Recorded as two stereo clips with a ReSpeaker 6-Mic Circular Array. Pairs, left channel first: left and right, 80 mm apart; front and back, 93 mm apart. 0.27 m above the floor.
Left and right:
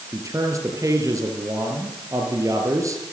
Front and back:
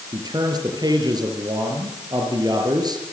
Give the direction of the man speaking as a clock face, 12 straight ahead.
5 o'clock.